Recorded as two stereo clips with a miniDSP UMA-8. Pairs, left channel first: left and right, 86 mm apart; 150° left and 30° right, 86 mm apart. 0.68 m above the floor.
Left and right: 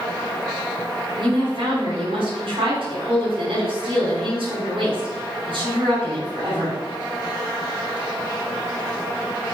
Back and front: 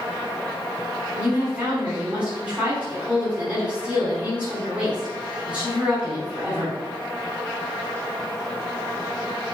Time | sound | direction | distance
1.2 | a woman speaking | 105° right | 5 m